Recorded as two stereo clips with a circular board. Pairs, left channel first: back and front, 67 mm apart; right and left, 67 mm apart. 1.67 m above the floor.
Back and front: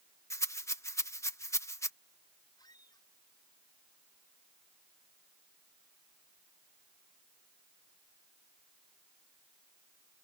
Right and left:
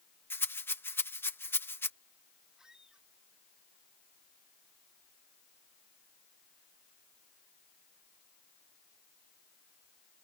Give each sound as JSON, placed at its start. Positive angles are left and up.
{"t": 0.3, "sound": "a rattle", "azimuth_deg": -145}
{"t": 2.6, "sound": "a squeak", "azimuth_deg": 170}